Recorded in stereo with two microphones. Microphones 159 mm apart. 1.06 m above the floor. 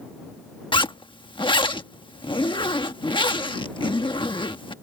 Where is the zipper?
30° left (ahead or behind).